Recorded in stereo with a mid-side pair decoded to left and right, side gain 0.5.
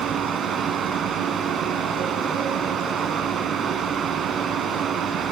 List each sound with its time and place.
0.0 s a fan: 55° right, 3 m